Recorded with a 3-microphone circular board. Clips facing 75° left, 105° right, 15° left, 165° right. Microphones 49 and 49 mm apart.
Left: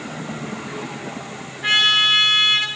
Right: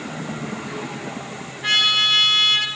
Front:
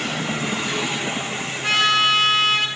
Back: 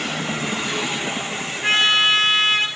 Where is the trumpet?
145° left, 2.5 m.